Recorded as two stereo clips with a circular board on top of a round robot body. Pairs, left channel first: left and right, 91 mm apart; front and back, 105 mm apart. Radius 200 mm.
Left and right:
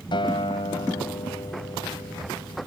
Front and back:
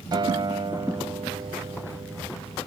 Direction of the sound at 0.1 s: 130° left.